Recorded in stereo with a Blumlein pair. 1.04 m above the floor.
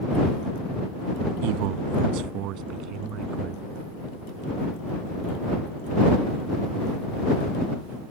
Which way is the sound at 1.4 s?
45° right.